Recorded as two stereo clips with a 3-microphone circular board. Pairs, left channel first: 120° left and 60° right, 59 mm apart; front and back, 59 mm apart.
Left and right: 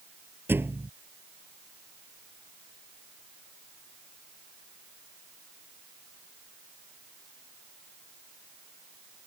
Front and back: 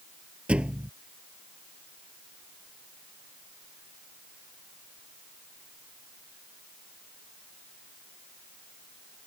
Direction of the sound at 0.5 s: 105° right.